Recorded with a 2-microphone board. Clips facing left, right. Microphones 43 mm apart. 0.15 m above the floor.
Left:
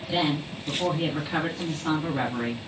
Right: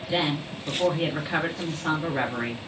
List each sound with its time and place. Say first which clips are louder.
0.1 s a woman speaking: even; 40° right (ahead or behind), 2.5 m